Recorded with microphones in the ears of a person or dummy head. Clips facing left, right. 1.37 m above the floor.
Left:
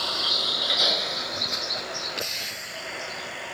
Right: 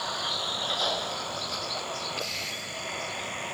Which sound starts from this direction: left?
A vehicle, at 0.0 s.